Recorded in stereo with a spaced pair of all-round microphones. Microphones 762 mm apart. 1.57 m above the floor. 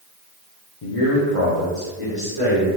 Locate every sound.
0.8 s a man speaking: 55° left (ahead or behind), 0.7 m; by 2.7 s 35° left (ahead or behind), 2 m